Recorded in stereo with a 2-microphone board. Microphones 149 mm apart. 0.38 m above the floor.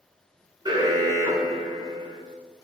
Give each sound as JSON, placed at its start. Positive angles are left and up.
{"t": 0.7, "sound": "an alarm", "side_deg": -30, "distance_m": 2.5}